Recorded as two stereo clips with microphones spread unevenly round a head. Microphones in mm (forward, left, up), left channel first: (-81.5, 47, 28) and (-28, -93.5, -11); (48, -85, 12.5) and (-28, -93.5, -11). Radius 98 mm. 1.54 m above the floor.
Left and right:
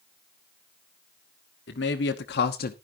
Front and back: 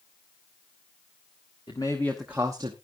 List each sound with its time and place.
1.7 s a man speaking: 75° left, 1.2 m; by 2.7 s 140° left, 0.8 m